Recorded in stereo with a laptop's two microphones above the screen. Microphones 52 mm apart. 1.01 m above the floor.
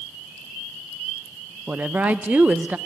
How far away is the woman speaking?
About 0.6 m.